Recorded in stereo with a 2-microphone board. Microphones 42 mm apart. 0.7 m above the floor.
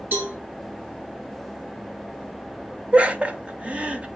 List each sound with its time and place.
0.1 s a cowbell: 50° right (ahead or behind), 1.9 m
2.9 s laughter: 30° right (ahead or behind), 0.6 m